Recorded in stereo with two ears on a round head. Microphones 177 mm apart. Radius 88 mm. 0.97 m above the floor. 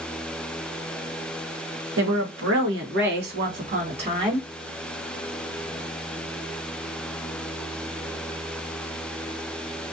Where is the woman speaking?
70° right (ahead or behind), 1.2 m; by 4.5 s 25° right (ahead or behind), 1.4 m.